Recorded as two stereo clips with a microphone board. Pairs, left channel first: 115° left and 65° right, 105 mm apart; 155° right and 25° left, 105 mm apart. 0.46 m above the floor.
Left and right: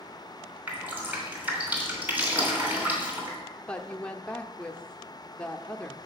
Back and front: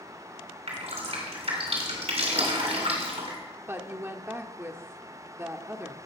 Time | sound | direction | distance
0.7 | dripping | 5° left | 3 m
3.6 | a woman speaking | 45° left | 0.7 m